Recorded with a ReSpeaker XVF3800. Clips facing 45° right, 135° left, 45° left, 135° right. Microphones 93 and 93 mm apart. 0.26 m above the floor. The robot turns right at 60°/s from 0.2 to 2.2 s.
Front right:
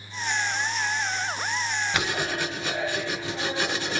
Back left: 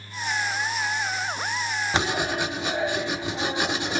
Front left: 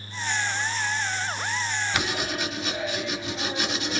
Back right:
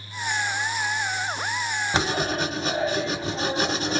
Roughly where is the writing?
Behind.